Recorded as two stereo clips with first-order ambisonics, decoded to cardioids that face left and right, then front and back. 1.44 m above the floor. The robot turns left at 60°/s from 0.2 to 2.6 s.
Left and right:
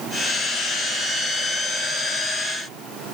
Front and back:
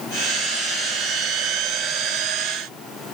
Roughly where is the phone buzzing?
I don't hear a phone buzzing.